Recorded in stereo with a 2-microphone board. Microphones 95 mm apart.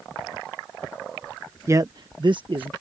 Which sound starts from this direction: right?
A man speaking, at 1.7 s.